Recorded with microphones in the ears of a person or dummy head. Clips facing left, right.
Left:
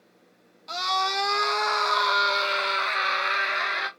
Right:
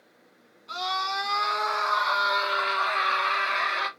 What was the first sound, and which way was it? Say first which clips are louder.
A scream: left 3 dB; 65° left (ahead or behind).